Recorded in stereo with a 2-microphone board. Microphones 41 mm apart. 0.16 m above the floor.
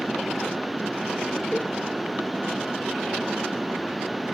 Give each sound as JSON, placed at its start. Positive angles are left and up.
{"t": 1.5, "sound": "a cowbell", "side_deg": 40, "distance_m": 2.5}